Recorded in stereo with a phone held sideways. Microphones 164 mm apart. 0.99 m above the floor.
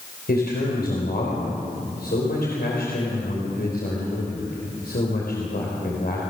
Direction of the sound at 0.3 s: 75° left (ahead or behind).